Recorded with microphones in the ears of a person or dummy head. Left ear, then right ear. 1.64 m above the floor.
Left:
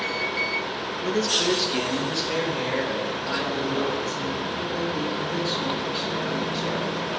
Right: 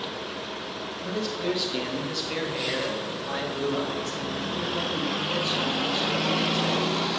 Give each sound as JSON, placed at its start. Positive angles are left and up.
{"t": 1.0, "sound": "a man speaking", "side_deg": 55, "distance_m": 1.8}